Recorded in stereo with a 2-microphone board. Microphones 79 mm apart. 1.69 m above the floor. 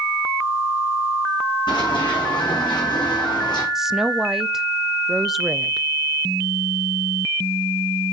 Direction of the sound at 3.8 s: 5° right (ahead or behind).